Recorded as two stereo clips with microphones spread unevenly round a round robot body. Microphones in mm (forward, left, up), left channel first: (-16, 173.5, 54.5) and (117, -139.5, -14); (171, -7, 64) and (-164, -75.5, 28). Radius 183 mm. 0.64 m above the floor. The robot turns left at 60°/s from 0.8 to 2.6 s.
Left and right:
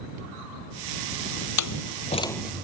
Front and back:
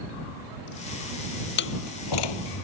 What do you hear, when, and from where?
1.6 s a door slam: 75° left; by 2.6 s 15° left